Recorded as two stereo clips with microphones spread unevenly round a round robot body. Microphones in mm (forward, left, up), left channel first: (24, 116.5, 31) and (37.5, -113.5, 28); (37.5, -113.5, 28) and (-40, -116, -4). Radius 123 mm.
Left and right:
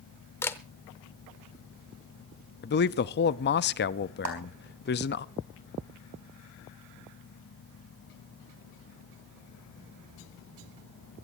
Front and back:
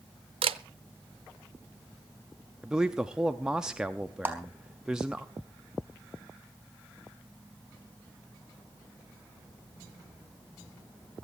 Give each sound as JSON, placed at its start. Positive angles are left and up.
{"t": 0.4, "sound": "a camera shutter", "azimuth_deg": 175, "distance_m": 0.6}
{"t": 2.6, "sound": "a man speaking", "azimuth_deg": 120, "distance_m": 0.6}
{"t": 4.2, "sound": "a clap", "azimuth_deg": -110, "distance_m": 4.0}